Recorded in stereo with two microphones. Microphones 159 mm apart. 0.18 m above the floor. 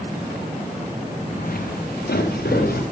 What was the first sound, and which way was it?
Footsteps, 60° left (ahead or behind).